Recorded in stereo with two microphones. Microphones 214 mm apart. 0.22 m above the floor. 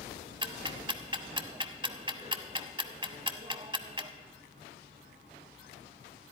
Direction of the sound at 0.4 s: 25° right (ahead or behind).